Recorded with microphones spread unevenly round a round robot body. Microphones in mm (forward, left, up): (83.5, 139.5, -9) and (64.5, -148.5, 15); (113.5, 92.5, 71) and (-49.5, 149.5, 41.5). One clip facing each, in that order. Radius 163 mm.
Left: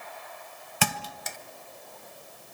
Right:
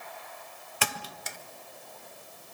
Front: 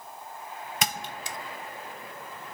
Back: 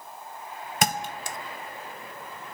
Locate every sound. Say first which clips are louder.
0.8 s a thud: left 5 dB, back 6 dB; 110° left, 0.9 m